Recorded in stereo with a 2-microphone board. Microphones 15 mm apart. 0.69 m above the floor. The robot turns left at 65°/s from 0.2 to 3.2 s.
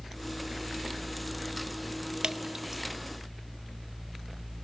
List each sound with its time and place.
2.2 s dripping: 75° right (ahead or behind), 0.6 m; by 2.8 s 35° right (ahead or behind), 0.6 m